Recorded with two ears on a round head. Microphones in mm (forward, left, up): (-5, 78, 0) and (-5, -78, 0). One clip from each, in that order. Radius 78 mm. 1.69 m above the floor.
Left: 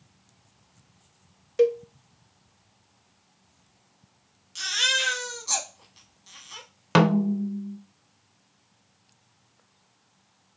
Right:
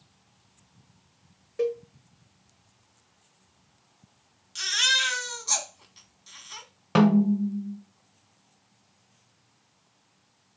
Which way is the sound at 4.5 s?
5° right (ahead or behind).